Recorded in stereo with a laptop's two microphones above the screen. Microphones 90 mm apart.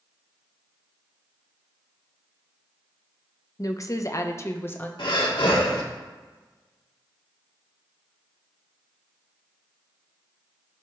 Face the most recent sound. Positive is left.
turn(degrees=90)